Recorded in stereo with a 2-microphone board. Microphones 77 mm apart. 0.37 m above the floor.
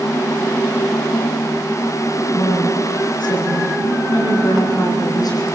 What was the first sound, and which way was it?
A woman speaking, 80° left.